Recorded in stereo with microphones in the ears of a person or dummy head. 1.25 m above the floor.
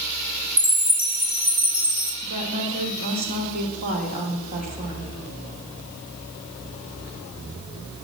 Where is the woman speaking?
50° right (ahead or behind), 3.5 m.